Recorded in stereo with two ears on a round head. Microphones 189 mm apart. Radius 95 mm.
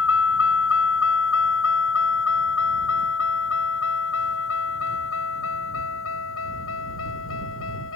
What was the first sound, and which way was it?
A vehicle, 65° left (ahead or behind).